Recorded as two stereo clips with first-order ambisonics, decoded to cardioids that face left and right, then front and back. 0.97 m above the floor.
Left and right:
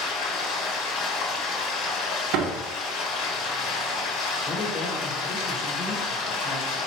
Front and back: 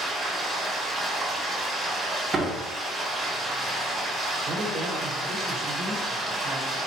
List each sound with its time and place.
0.0 s running water: 110° left, 1.3 m
2.3 s a door slam: 105° right, 0.7 m
4.5 s a woman speaking: 130° left, 1.0 m